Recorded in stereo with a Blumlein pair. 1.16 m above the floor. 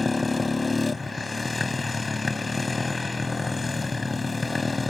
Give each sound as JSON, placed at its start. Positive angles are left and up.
{"t": 0.0, "sound": "a motorcycle", "azimuth_deg": 10}